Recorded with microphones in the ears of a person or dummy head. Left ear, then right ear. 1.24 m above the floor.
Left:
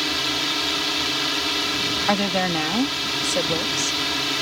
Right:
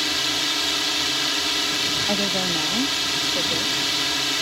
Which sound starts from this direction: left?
A woman speaking, at 2.1 s.